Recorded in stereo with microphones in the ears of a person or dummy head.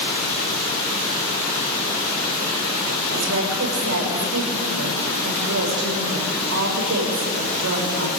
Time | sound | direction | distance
3.1 | a woman speaking | 70° right (ahead or behind) | 6 m